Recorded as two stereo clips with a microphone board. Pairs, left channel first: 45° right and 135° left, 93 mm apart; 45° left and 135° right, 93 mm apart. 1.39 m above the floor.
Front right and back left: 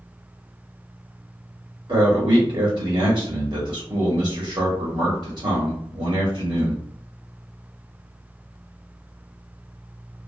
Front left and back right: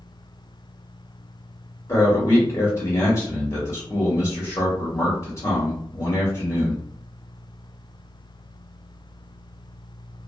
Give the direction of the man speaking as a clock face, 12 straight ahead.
9 o'clock.